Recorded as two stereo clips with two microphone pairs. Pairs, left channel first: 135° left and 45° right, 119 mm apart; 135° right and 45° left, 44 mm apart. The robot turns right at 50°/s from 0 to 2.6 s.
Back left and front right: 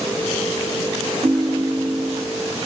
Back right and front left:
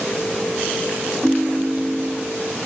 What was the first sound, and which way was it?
A ringtone, 55° right.